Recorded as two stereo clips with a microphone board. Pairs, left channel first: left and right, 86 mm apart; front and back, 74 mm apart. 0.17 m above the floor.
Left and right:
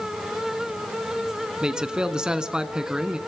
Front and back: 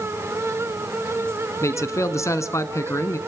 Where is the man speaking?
10° right, 1.4 m.